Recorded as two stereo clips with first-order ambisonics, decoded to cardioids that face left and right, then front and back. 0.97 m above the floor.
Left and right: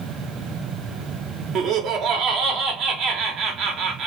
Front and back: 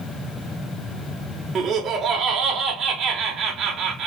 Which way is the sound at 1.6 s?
120° right.